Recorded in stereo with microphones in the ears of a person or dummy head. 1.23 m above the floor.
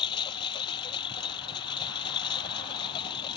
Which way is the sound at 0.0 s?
25° left (ahead or behind).